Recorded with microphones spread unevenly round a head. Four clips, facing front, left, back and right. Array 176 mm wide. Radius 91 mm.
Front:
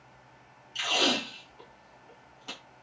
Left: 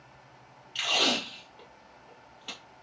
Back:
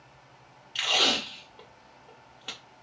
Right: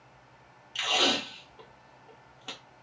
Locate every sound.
0.8 s tape being pulled: 155° right, 1.4 m